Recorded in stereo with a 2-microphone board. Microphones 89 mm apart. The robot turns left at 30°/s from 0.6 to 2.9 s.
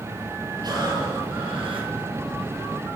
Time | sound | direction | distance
0.6 | breathing | 55° right | 5.5 m